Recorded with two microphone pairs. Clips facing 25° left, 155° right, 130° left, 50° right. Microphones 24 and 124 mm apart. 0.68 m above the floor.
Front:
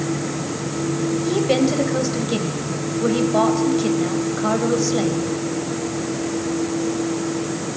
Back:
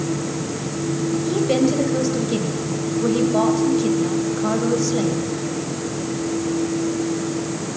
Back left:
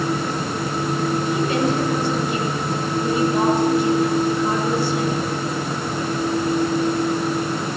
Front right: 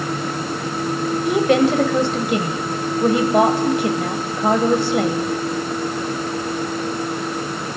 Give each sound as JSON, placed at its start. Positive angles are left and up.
{"t": 1.2, "sound": "a woman speaking", "azimuth_deg": -50, "distance_m": 3.0}